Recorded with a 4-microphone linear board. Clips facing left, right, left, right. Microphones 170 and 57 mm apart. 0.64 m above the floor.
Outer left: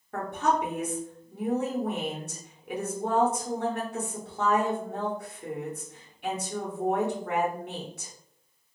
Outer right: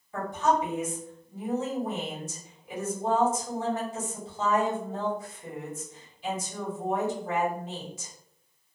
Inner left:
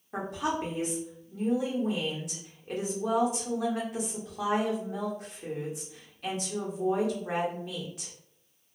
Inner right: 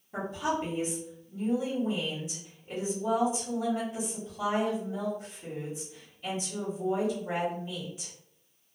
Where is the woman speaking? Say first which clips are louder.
Outer right 1 dB, even; 65° left (ahead or behind), 1.3 m.